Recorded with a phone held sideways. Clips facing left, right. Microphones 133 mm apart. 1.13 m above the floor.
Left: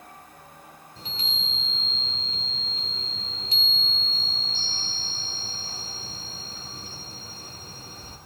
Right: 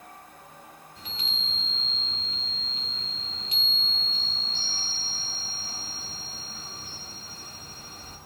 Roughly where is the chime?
Left.